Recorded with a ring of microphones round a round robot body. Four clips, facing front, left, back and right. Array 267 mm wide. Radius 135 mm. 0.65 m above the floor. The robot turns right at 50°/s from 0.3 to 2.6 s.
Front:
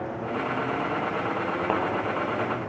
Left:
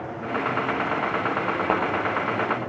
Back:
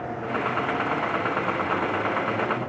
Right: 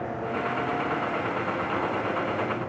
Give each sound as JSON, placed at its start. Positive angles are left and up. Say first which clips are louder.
{"t": 1.7, "sound": "a thud", "louder": "left 9 dB, front 3 dB", "azimuth_deg": 65, "distance_m": 1.5}